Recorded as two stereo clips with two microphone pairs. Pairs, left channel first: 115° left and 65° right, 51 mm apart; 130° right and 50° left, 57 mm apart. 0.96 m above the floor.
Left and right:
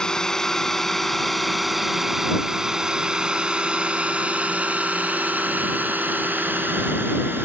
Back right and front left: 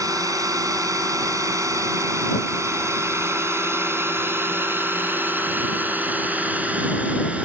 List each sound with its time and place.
0.0 s a drone: 40° left; by 7.5 s 20° right